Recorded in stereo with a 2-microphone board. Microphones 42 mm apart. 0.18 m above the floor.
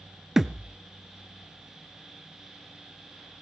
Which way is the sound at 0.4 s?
10° right (ahead or behind).